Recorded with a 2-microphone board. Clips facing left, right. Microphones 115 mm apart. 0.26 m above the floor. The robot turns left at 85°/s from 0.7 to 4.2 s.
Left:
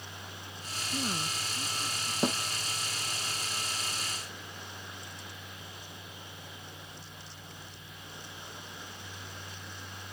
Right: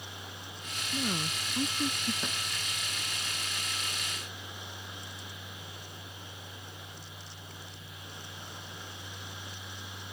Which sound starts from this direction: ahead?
A woman speaking, at 0.9 s.